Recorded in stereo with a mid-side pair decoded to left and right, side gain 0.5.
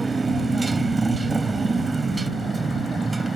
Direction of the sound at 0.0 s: 20° right.